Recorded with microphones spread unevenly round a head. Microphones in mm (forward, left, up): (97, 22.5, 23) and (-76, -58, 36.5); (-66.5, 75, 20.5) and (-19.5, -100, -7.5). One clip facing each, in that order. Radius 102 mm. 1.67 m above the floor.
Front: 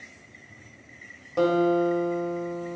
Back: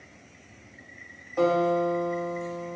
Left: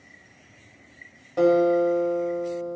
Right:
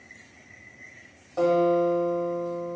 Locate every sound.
1.4 s a guitar: 55° left, 2 m